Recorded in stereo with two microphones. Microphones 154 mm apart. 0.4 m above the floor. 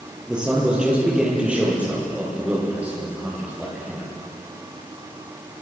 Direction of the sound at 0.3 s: 5° right (ahead or behind).